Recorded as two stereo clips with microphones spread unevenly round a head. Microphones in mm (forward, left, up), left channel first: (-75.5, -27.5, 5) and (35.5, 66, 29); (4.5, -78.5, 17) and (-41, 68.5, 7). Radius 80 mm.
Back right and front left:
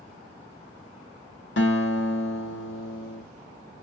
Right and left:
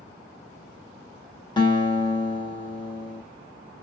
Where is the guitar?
135° right, 1.2 m.